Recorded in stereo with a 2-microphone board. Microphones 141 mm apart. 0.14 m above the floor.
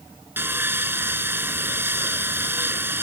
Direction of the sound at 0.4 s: 15° right (ahead or behind).